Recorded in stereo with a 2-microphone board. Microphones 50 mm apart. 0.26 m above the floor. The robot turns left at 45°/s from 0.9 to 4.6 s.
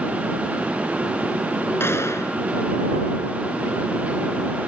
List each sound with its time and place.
1.8 s a gunshot: 55° left (ahead or behind); by 2.4 s 70° left (ahead or behind)